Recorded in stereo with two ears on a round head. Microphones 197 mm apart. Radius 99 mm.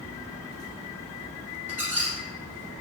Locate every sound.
1.7 s a squeak: 10° right (ahead or behind), 2.5 m